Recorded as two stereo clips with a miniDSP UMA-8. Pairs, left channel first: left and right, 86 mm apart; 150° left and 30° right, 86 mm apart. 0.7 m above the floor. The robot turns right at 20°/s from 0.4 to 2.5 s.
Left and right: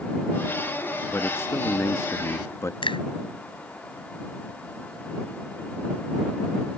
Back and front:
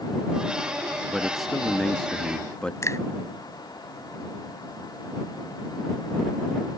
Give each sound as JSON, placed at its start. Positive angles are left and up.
{"t": 1.1, "sound": "a man speaking", "azimuth_deg": 55}
{"t": 2.8, "sound": "a finger snap", "azimuth_deg": 95}